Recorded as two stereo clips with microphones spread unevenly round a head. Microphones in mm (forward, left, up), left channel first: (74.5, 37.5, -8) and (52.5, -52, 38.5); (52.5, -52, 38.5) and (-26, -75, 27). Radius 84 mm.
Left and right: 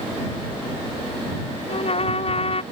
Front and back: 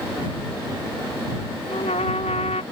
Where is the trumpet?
50° left.